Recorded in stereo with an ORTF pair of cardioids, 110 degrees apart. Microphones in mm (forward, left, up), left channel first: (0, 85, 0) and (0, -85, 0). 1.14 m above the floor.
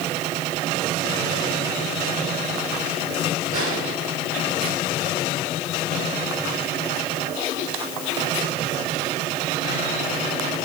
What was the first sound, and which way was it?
A snare drum, 50° right.